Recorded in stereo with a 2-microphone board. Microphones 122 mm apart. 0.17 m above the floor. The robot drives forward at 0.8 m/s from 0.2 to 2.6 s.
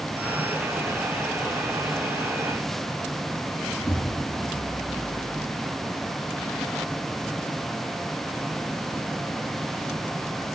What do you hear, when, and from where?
3.8 s an explosion: 15° left (ahead or behind), 2.5 m